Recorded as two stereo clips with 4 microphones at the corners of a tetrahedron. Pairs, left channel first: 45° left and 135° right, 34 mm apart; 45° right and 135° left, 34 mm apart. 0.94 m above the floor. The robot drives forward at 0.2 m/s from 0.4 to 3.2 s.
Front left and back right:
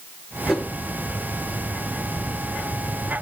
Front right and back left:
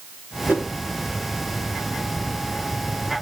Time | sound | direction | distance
0.5 | a whoosh | 140° left | 3 m